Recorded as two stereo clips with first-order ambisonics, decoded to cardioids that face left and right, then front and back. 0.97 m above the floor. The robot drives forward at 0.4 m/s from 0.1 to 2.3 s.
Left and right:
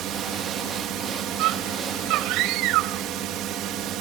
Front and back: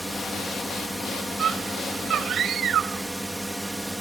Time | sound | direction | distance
0.0 | a drone | 85° right | ?
1.4 | a scream | 115° right | ?